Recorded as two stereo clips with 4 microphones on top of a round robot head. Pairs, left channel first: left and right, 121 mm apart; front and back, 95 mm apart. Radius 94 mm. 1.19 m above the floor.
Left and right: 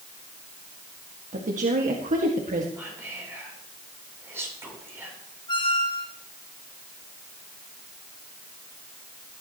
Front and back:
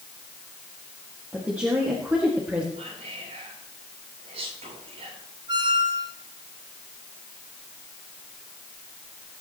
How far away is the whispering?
About 8.5 m.